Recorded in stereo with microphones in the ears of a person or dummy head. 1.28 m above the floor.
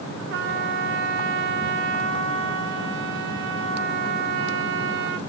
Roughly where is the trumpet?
Right.